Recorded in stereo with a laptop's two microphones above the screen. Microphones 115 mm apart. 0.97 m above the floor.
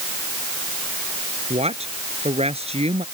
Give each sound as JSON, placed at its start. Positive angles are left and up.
{"t": 1.5, "sound": "a woman speaking", "side_deg": -65}